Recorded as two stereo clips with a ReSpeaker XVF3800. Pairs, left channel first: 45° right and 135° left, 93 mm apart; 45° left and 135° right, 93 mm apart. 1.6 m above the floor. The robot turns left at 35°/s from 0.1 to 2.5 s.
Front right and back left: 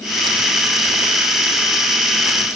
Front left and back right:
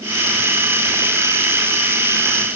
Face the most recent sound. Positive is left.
No sound to turn to.